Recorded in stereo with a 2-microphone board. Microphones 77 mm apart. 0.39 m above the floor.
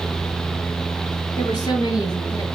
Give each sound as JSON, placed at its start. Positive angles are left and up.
{"t": 1.4, "sound": "a woman speaking", "side_deg": 60, "distance_m": 5.5}